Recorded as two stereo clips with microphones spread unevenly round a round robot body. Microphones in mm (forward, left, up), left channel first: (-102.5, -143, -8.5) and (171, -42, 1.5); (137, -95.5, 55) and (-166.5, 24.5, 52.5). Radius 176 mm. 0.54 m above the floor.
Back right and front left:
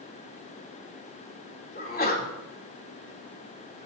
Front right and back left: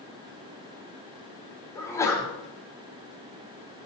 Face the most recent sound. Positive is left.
turn(degrees=-100)